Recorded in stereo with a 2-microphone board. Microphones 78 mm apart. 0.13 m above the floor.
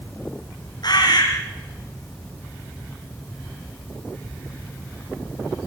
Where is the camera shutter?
I don't hear a camera shutter.